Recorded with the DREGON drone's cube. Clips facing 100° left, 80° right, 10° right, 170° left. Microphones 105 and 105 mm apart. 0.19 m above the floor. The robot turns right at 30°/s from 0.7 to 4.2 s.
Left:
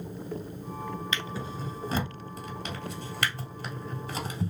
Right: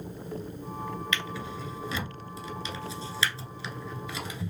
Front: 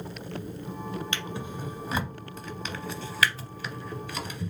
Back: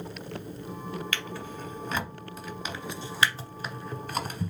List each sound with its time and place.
1.1 s a drawer: 50° left, 0.9 m; by 4.5 s 140° left, 0.9 m